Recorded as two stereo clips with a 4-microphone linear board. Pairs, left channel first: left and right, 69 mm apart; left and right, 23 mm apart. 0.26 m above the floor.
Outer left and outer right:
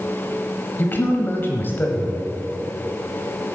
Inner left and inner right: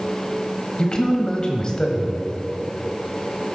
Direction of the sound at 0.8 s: 30° left (ahead or behind).